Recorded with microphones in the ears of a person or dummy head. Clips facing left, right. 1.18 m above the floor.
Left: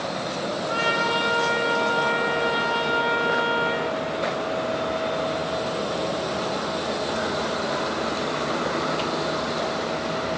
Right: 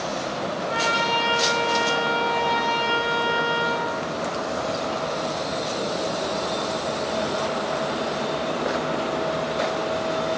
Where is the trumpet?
80° left, 9 m.